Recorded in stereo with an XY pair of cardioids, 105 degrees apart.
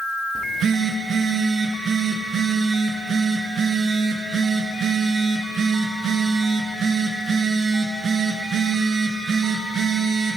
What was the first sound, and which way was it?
A phone buzzing, 60° right.